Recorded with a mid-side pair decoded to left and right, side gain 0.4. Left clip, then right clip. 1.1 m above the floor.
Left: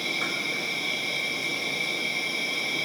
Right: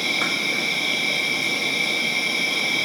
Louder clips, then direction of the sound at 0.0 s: Right 6 dB; 55° right.